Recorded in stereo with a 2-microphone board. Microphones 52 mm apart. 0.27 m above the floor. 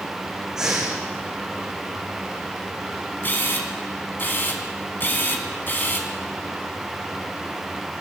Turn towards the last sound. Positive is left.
turn(degrees=40)  # may be behind; listen again after turning